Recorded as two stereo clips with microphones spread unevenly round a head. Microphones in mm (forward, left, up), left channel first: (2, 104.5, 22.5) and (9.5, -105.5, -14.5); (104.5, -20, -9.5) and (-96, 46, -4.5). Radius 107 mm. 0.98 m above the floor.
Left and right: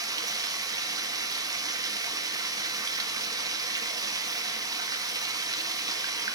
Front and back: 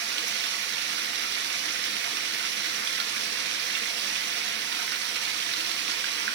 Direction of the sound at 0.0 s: 155° right.